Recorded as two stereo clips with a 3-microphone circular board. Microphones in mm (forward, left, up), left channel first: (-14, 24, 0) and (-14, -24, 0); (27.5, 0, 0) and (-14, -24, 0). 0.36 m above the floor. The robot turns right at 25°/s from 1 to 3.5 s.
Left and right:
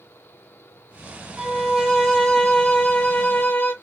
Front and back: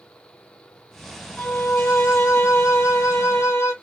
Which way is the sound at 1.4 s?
5° right.